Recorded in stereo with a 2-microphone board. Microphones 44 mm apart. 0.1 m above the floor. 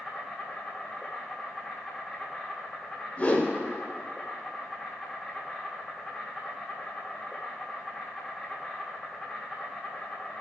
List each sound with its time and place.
0.0 s an insect: 10° right (ahead or behind), 3 m
3.2 s a whoosh: 30° left (ahead or behind), 1.8 m